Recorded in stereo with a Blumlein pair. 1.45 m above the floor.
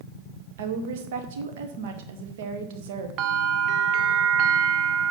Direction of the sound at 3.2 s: 40° right.